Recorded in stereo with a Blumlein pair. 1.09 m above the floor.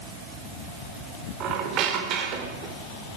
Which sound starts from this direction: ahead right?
A squeak, at 1.4 s.